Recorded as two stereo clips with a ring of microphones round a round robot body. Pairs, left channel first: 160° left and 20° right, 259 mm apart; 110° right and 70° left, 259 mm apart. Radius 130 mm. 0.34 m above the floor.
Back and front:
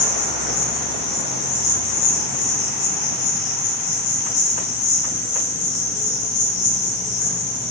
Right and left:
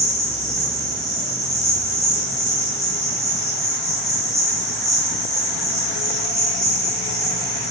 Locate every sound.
0.0 s an insect: 160° left, 2.5 m